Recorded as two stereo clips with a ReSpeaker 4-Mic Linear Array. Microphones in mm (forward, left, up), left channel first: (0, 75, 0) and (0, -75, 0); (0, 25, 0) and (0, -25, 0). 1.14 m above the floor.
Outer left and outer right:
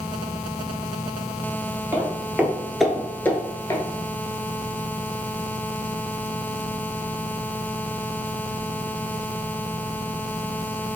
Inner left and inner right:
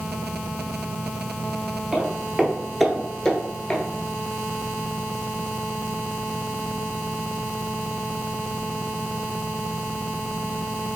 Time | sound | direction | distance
1.9 | footsteps | 20° right (ahead or behind) | 1.2 m